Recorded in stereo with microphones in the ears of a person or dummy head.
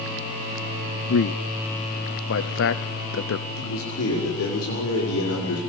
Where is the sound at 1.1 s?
75° left (ahead or behind), 0.9 m.